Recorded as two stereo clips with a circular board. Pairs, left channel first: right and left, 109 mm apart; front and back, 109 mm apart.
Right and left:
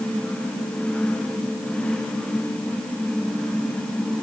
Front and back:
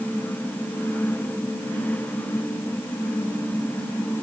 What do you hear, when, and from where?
Only background noise.